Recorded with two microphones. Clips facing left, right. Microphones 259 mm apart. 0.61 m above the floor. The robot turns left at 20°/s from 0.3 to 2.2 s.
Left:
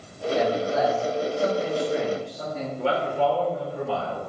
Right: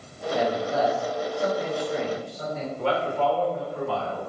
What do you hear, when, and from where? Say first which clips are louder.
0.3 s a man speaking: left 2 dB; 145° left, 1.3 m; by 2.7 s 110° left, 1.3 m
2.8 s a man speaking: left 1 dB; 30° left (ahead or behind), 1.9 m